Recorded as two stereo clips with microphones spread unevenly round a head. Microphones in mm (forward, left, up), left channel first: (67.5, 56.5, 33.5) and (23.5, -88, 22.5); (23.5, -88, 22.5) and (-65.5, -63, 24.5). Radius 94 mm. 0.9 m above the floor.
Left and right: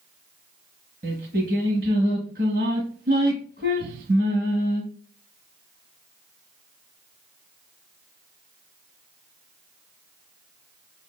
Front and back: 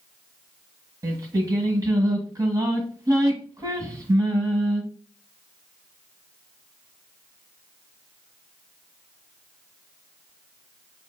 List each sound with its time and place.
1.0 s singing: 150° right, 1.3 m